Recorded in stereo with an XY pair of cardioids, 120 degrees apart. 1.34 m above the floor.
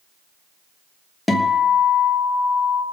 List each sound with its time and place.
1.3 s a guitar: 10° left, 1.3 m